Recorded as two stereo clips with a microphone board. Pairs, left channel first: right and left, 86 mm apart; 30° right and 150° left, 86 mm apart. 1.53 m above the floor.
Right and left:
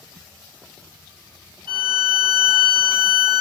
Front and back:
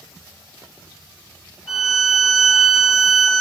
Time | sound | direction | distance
1.7 | a violin | 70° left | 4 m